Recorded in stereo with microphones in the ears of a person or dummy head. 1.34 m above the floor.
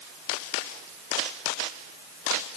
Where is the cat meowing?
I don't hear a cat meowing.